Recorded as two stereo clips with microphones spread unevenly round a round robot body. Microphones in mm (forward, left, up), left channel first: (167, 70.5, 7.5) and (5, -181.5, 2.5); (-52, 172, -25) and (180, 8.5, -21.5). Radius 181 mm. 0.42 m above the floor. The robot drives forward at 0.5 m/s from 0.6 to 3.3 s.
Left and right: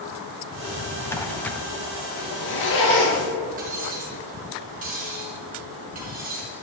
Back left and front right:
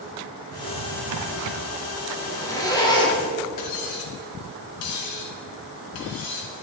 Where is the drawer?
20° right, 2 m; by 1.6 s 30° right, 1.6 m.